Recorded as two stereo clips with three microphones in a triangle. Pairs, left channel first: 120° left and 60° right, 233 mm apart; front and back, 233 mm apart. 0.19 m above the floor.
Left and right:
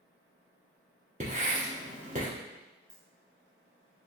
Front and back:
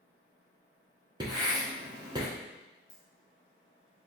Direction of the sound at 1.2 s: 110° right.